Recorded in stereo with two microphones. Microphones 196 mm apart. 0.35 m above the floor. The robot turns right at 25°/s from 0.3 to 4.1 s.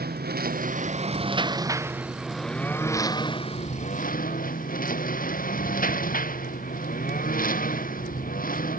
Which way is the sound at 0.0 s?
50° right.